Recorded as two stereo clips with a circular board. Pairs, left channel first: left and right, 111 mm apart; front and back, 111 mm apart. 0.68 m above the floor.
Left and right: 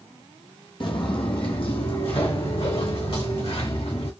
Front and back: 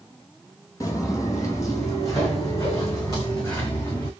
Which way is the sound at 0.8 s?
55° left.